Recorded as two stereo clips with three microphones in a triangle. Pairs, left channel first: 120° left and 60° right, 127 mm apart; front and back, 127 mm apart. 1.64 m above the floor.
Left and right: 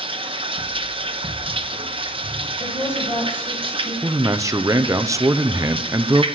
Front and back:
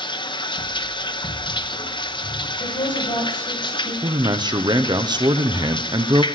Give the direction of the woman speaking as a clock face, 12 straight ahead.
10 o'clock.